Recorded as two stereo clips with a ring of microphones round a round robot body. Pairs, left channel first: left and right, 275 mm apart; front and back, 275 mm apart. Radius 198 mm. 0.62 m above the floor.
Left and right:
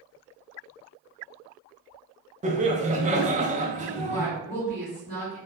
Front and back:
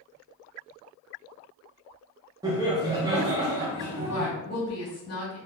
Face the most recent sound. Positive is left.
turn(degrees=30)